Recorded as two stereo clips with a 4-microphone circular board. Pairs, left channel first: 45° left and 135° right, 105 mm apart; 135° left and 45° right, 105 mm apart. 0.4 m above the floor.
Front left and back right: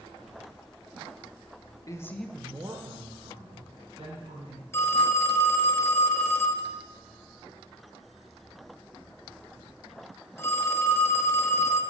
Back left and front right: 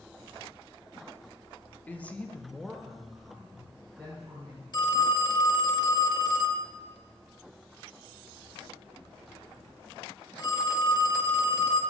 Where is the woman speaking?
70° left, 0.9 m; by 4.6 s 125° right, 3 m.